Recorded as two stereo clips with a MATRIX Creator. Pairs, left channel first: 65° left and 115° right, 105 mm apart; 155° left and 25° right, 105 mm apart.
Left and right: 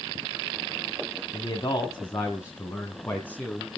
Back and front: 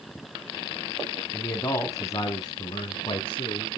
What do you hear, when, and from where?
1.3 s a man speaking: 95° left, 1.6 m; by 3.8 s 145° left, 2 m